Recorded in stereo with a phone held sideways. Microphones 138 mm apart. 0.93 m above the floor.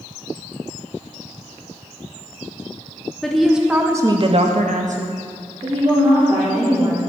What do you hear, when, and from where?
3.2 s a woman speaking: 5° left (ahead or behind), 1.3 m; by 7.0 s 40° right (ahead or behind), 2.5 m